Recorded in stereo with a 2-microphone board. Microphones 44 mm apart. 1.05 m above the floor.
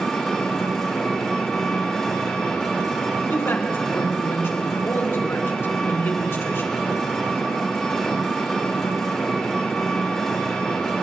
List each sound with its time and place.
0.0 s an engine running: 15° left (ahead or behind), 2.5 m
3.3 s a man speaking: 75° left (ahead or behind), 2.5 m